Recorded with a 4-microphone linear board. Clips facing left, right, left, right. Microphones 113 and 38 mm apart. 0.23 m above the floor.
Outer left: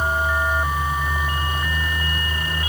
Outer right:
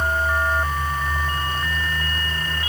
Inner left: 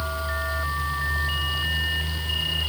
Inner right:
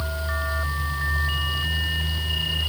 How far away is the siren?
No siren in this recording.